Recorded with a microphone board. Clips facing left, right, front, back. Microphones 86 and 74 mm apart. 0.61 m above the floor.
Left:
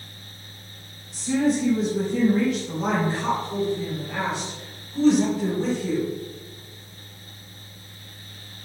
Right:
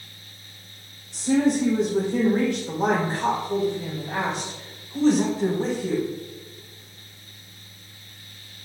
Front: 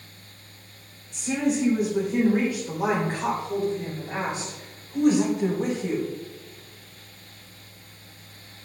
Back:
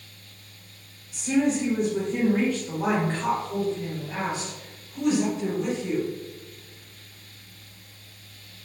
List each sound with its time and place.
1.1 s a woman speaking: 95° right, 2 m; by 6.0 s 30° right, 3.5 m